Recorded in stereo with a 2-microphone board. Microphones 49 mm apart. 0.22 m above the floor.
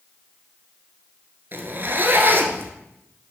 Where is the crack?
I don't hear a crack.